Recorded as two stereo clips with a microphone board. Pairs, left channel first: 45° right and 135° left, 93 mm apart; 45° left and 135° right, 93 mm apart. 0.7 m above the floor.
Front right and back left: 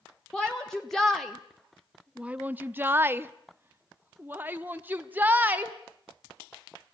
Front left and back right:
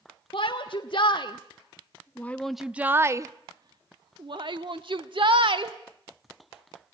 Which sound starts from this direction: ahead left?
A shout, at 0.3 s.